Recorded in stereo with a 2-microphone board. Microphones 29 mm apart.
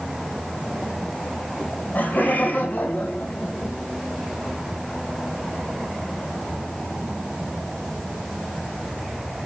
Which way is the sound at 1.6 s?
75° left (ahead or behind).